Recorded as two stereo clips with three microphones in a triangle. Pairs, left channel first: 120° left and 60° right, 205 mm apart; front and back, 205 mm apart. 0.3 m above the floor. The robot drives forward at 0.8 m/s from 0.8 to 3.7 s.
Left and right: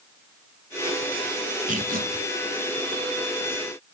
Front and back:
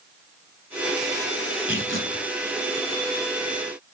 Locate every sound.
1.7 s tearing paper: 10° right, 1.4 m; by 2.3 s 15° right, 1.0 m